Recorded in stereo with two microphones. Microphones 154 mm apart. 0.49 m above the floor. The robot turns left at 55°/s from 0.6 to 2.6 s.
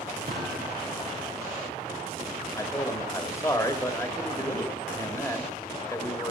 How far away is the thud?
About 3.5 m.